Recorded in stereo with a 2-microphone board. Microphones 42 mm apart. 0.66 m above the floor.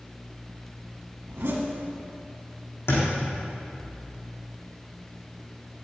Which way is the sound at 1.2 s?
75° right (ahead or behind).